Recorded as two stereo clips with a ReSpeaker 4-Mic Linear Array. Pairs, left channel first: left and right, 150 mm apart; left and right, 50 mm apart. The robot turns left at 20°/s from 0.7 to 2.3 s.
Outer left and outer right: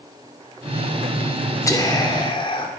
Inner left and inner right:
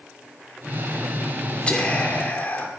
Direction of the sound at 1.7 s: 20° left (ahead or behind).